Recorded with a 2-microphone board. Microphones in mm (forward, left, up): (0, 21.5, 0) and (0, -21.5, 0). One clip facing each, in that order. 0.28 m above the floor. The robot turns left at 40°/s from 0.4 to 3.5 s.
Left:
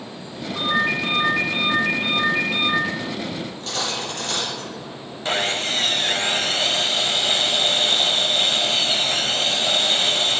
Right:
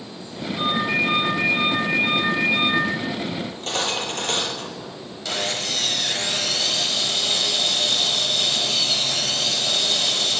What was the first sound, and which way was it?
A ringtone, 100° left.